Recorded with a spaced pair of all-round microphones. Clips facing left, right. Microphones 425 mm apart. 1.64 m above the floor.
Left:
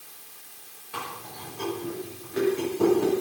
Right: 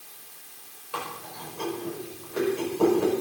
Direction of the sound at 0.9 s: 35° left (ahead or behind).